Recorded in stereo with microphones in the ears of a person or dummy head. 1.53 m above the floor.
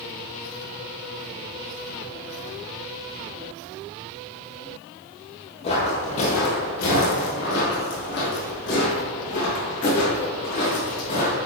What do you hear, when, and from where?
5.6 s footsteps: 35° left (ahead or behind), 2.0 m; by 11.4 s 40° left (ahead or behind), 4.5 m